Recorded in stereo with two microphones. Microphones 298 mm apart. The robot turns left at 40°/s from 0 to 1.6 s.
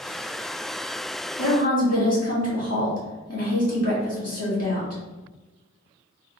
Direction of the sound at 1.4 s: 60° left (ahead or behind).